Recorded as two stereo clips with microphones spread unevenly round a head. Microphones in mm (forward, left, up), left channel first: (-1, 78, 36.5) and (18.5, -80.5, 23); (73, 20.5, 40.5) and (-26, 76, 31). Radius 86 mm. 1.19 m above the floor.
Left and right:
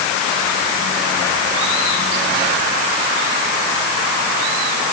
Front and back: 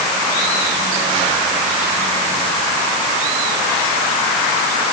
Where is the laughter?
No laughter in this recording.